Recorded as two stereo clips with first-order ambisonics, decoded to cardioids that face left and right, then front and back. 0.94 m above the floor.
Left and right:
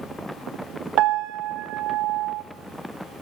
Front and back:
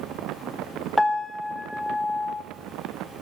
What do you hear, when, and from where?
1.0 s a piano: 85° right, 1.2 m